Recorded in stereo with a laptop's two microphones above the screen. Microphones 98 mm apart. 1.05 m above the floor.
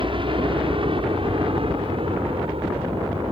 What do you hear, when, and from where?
0.0 s a helicopter: 60° right (ahead or behind); by 3.3 s 70° right (ahead or behind)